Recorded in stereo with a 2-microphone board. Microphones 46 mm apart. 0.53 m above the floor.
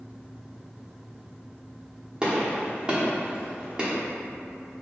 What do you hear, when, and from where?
2.2 s a gunshot: 20° right (ahead or behind), 0.9 m